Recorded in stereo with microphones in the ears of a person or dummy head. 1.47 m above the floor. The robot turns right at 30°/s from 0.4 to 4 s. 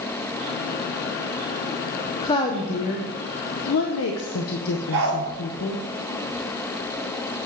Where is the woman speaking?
20° left, 0.7 m; by 5.8 s 75° left, 0.7 m.